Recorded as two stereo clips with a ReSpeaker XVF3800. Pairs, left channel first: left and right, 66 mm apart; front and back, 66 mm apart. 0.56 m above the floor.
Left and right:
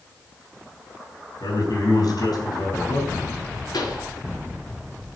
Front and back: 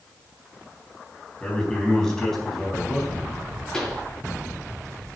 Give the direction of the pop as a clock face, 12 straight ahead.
9 o'clock.